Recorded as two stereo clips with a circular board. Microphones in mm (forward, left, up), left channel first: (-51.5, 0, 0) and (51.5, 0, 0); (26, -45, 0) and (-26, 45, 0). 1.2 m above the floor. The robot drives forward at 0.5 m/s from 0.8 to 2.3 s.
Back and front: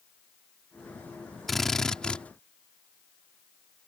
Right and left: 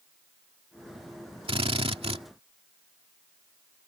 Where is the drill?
90° left; by 2.2 s 100° left.